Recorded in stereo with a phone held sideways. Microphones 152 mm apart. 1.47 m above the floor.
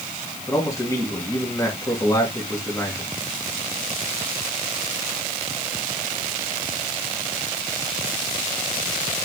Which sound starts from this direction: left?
A man speaking, at 0.5 s.